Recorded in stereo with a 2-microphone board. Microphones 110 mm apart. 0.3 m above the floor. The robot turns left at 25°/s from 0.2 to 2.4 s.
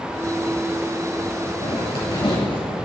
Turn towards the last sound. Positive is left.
turn(degrees=50)  # may be behind; listen again after turning